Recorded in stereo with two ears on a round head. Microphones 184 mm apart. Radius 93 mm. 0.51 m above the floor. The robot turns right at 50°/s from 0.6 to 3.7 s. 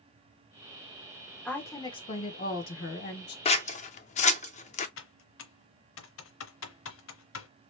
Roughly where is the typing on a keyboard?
Left.